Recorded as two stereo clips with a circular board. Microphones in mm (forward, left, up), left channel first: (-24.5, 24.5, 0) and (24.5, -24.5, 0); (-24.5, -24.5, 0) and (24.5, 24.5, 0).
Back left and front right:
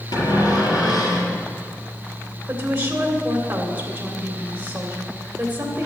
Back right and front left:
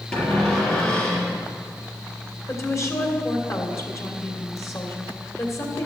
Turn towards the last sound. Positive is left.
turn(degrees=-100)